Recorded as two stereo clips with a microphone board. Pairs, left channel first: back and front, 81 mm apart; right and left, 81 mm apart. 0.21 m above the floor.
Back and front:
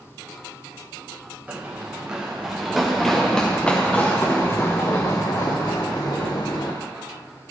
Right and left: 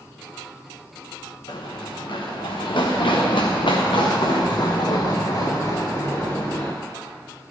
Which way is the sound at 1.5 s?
70° right.